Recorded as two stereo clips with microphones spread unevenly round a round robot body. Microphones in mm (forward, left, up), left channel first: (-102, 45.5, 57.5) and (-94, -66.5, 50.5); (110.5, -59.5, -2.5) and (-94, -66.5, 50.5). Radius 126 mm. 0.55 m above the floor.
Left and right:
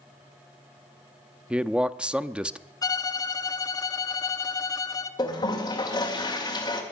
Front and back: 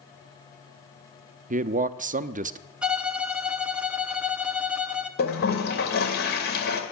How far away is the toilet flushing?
About 2 m.